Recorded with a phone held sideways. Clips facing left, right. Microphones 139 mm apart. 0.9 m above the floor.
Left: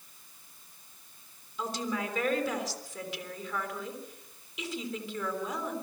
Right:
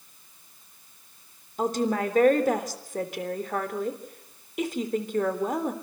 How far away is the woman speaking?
About 3.5 m.